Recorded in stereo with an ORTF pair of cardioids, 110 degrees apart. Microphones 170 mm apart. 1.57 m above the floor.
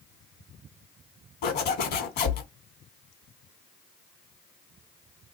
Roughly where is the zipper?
Left.